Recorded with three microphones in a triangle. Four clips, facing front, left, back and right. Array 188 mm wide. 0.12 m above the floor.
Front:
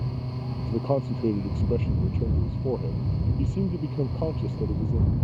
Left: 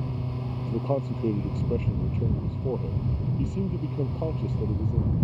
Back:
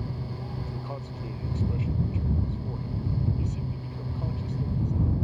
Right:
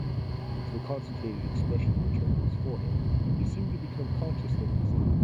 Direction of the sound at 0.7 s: 35° left.